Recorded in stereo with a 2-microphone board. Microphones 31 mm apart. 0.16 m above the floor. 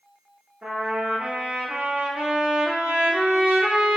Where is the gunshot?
I don't hear a gunshot.